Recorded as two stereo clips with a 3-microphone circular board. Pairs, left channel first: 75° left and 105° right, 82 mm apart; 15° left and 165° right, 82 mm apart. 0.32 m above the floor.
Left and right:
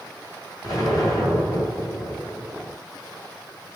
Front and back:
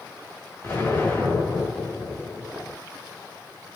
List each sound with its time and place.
0.6 s an explosion: 65° left, 2.0 m